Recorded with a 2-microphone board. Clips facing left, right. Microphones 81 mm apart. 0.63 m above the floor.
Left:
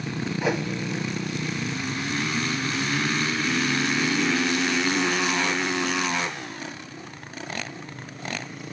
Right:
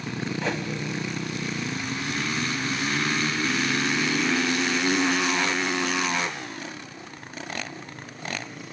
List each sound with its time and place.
0.4 s a whoosh: 10° left (ahead or behind), 0.8 m